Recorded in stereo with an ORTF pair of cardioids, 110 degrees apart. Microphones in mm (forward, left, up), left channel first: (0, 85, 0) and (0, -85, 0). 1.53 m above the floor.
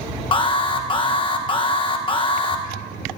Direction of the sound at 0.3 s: 30° left.